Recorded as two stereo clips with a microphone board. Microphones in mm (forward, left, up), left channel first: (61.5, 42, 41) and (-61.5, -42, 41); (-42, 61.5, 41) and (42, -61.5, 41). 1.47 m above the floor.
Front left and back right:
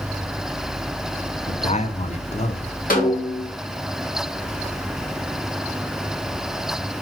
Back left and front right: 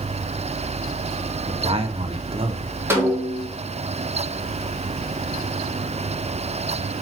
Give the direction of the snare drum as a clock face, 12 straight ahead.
11 o'clock.